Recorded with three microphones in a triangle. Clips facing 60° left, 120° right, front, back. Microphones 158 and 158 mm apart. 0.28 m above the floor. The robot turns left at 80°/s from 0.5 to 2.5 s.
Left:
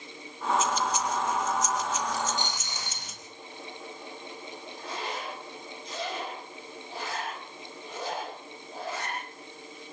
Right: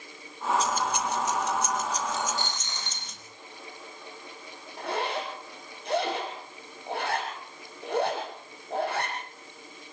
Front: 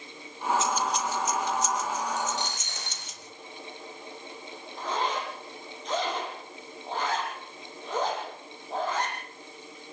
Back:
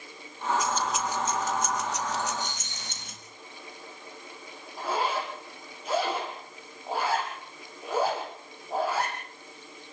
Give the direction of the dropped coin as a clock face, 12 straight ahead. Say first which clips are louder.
Even, front 1 dB; 12 o'clock.